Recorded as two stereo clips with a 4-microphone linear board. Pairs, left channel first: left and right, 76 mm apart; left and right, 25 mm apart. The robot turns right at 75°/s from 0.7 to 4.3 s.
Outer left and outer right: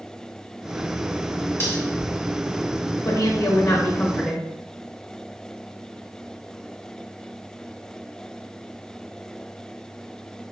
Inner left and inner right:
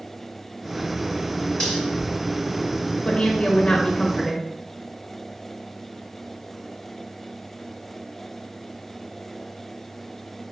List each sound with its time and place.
1.6 s cutlery clinking: 35° left (ahead or behind), 1.7 m; by 1.8 s 20° left (ahead or behind), 1.7 m
3.0 s a woman speaking: 85° left, 1.0 m; by 4.5 s straight behind, 1.0 m